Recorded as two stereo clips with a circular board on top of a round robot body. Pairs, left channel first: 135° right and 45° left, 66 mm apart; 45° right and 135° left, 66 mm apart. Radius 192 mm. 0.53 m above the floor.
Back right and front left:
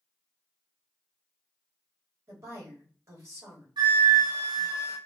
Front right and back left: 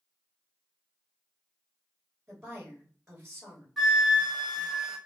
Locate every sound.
2.3 s a woman speaking: 55° left, 1.6 m
3.8 s a flute: 45° left, 0.5 m